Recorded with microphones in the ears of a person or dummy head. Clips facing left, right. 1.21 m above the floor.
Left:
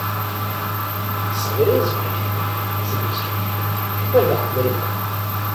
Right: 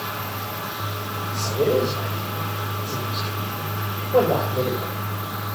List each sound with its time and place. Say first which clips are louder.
1.3 s a man speaking: left 3 dB; 15° left (ahead or behind), 5.5 m